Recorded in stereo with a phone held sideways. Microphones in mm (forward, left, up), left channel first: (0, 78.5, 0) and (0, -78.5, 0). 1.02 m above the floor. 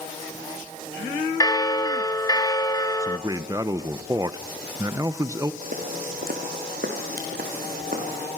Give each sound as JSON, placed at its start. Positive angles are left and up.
{"t": 1.4, "sound": "a bell", "side_deg": 25, "distance_m": 1.1}
{"t": 3.0, "sound": "a man speaking", "side_deg": -25, "distance_m": 0.6}
{"t": 5.6, "sound": "footsteps", "side_deg": -60, "distance_m": 3.0}